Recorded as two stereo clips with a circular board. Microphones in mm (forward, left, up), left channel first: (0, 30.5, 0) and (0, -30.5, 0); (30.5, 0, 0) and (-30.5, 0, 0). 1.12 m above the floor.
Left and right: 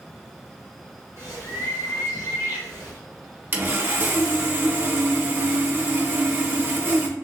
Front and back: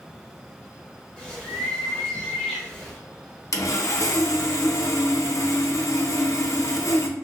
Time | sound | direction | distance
1.2 | a bird | 80° left | 1.5 m
3.5 | sawing | 35° right | 0.6 m